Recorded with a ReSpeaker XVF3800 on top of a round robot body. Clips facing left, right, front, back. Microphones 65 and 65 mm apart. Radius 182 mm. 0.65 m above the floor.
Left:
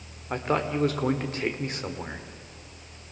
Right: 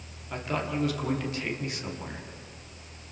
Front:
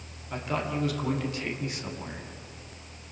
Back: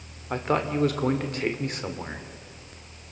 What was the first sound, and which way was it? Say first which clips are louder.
A man speaking: left 5 dB, back 5 dB; 140° left.